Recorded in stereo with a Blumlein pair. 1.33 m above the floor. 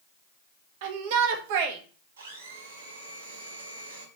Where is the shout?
50° right, 1.6 m.